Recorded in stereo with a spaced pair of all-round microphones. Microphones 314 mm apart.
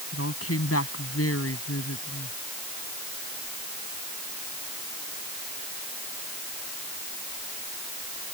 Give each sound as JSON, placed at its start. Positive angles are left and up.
{"t": 0.1, "sound": "a woman speaking", "side_deg": 45}